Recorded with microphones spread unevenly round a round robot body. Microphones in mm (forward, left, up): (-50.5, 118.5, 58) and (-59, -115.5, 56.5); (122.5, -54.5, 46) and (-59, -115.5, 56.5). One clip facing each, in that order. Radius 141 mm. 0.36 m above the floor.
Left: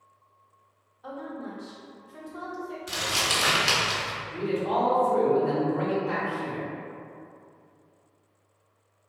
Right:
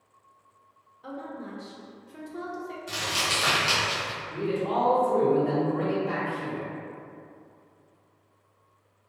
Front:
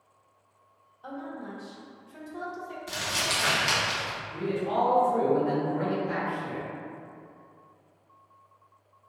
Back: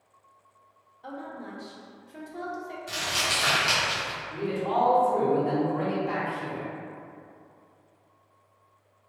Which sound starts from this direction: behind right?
A man speaking, at 4.3 s.